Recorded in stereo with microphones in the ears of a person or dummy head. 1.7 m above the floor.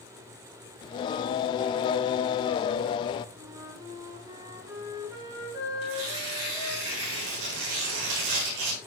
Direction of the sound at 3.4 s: 20° right (ahead or behind).